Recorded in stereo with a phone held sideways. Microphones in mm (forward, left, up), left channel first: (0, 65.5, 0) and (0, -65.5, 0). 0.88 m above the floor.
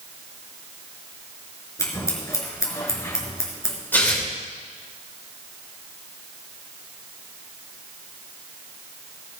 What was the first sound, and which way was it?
Scissors, 20° left (ahead or behind).